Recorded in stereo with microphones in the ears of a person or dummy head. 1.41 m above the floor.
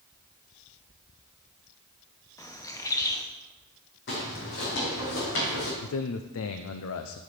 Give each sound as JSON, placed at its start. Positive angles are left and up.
{"t": 2.4, "sound": "a bird", "side_deg": 15, "distance_m": 0.8}
{"t": 4.1, "sound": "footsteps", "side_deg": 60, "distance_m": 3.5}
{"t": 5.8, "sound": "a man speaking", "side_deg": 70, "distance_m": 0.5}